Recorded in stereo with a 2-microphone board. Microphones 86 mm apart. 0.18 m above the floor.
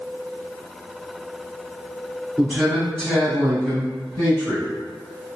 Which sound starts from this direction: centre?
A man speaking, at 2.4 s.